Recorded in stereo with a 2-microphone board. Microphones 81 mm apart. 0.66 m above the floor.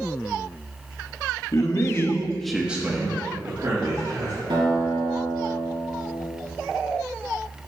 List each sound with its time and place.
1.5 s a man speaking: 50° left (ahead or behind), 1.1 m; by 4.4 s 65° right (ahead or behind), 1.9 m
4.5 s a guitar: 85° right, 2.5 m